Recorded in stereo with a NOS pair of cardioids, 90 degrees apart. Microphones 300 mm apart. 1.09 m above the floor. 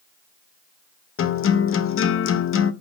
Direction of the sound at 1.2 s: 45° left.